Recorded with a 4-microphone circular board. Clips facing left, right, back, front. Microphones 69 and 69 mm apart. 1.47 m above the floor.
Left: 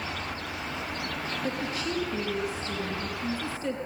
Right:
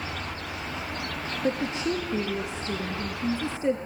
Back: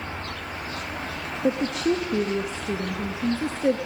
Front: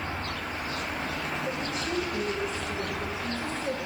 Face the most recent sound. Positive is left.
turn(degrees=-160)